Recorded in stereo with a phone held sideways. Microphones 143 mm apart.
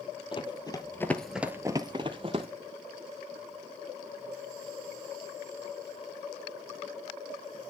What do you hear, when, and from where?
0.3 s running footsteps: 35° left (ahead or behind), 1.8 m; by 2.5 s 40° right (ahead or behind), 1.9 m